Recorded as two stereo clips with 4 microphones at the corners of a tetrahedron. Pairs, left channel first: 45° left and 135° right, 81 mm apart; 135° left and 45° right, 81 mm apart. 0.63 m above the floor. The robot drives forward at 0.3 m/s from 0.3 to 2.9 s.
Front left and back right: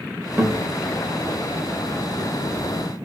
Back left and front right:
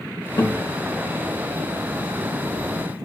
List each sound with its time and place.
0.4 s a guitar: 160° left, 0.6 m; by 0.6 s 165° left, 0.7 m